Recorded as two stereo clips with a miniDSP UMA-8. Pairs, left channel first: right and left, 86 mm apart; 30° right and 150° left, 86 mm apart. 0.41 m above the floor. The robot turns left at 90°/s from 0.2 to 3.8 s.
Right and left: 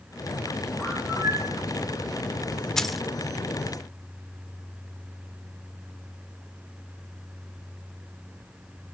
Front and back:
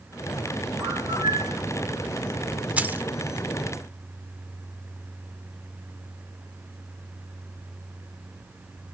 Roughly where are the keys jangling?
Behind.